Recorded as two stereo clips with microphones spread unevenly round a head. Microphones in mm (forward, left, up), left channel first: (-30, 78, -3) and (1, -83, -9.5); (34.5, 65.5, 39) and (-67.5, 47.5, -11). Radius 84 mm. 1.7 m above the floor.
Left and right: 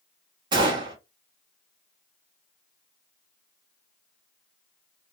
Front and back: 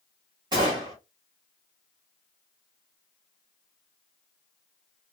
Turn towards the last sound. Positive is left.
turn(degrees=-95)